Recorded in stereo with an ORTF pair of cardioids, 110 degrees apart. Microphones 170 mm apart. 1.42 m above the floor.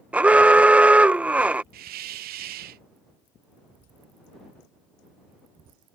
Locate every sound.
0.1 s an alarm: 10° right
1.7 s a hiss: 65° right